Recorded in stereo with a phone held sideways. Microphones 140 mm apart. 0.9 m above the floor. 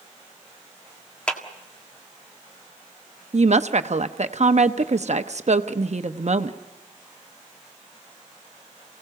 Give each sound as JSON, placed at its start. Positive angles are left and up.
{"t": 1.3, "sound": "a clap", "side_deg": 10, "distance_m": 1.7}
{"t": 3.3, "sound": "a woman speaking", "side_deg": -55, "distance_m": 0.9}